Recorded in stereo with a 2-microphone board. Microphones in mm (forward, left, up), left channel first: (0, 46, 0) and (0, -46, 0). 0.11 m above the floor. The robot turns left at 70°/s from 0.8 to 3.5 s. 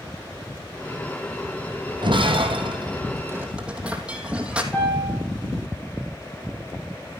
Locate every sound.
2.0 s breaking glass: 60° right (ahead or behind), 2.0 m; by 4.6 s 15° right (ahead or behind), 2.0 m
4.7 s a piano: 15° left (ahead or behind), 6.5 m